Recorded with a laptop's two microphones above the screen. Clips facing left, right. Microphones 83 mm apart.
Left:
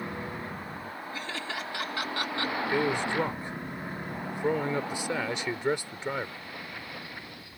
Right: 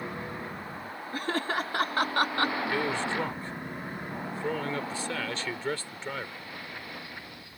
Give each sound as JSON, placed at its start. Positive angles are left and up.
{"t": 1.1, "sound": "laughter", "side_deg": -45}
{"t": 2.7, "sound": "a man speaking", "side_deg": 20}